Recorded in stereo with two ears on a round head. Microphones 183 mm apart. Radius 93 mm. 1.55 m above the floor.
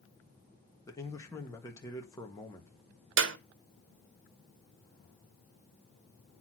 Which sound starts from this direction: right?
A clap, at 3.2 s.